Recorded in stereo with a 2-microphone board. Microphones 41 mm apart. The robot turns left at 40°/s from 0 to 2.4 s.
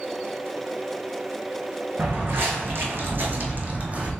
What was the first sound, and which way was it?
Footsteps, 55° right (ahead or behind).